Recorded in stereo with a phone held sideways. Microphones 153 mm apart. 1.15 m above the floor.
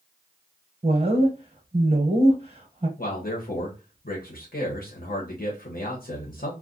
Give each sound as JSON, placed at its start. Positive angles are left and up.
{"t": 0.8, "sound": "a woman speaking", "side_deg": -40, "distance_m": 1.0}
{"t": 3.0, "sound": "a man speaking", "side_deg": 70, "distance_m": 1.1}